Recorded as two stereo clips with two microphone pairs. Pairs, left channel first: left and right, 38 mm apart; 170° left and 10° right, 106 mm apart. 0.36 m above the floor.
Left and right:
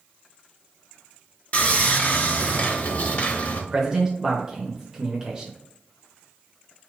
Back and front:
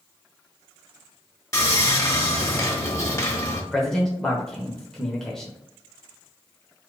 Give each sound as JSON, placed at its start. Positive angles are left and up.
{"t": 1.5, "sound": "sawing", "azimuth_deg": 115, "distance_m": 0.9}
{"t": 3.7, "sound": "a man speaking", "azimuth_deg": -115, "distance_m": 0.8}